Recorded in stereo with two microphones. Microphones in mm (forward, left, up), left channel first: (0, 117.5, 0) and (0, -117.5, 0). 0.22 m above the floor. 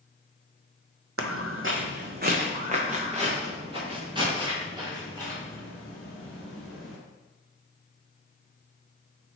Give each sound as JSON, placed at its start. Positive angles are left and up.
{"t": 1.2, "sound": "footsteps", "side_deg": -75, "distance_m": 0.6}